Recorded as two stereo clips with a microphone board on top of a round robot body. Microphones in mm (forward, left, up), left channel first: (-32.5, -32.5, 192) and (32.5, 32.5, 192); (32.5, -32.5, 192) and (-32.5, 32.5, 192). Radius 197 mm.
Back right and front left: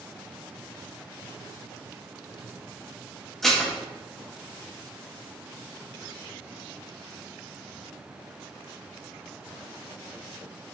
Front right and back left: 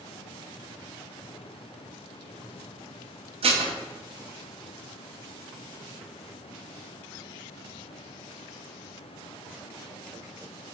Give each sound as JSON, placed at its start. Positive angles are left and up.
{"t": 3.4, "sound": "dishes clattering", "azimuth_deg": 140, "distance_m": 0.5}